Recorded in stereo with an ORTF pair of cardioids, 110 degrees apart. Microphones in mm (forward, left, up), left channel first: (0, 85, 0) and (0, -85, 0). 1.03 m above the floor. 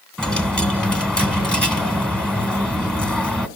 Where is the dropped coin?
5° left, 2 m.